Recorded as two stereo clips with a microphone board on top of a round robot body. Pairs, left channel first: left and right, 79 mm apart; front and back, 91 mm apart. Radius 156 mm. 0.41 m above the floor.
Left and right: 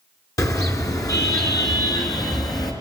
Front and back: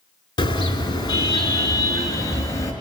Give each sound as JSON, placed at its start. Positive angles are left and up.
{"t": 0.4, "sound": "a car horn", "azimuth_deg": 40, "distance_m": 4.5}